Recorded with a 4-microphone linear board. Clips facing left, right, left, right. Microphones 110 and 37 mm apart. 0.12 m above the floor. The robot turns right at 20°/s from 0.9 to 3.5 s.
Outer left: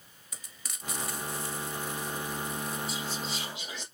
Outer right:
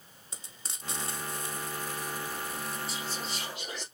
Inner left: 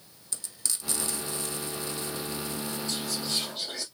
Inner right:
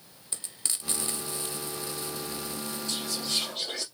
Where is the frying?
30° right (ahead or behind), 1.2 m; by 2.8 s centre (ahead or behind), 1.2 m.